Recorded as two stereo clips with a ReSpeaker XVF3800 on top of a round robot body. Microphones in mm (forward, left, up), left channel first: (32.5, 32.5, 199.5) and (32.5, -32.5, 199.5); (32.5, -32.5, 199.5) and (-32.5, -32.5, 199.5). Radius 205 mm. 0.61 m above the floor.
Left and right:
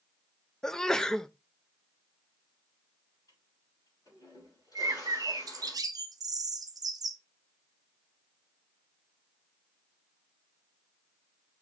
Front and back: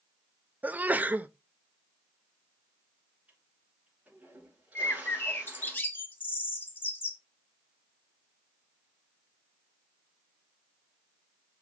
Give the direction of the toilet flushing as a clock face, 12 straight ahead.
8 o'clock.